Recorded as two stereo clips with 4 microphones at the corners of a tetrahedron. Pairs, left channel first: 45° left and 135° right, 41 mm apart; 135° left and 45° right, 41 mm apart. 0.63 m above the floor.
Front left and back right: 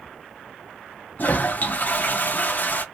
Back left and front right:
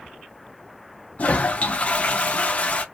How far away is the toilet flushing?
About 0.5 m.